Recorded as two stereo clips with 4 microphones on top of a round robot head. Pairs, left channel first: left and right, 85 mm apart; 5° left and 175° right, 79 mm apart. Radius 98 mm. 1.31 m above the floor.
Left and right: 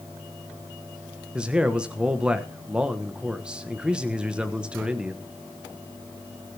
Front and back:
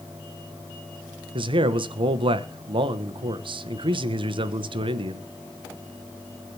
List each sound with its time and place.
1.4 s a man speaking: 170° right, 1.2 m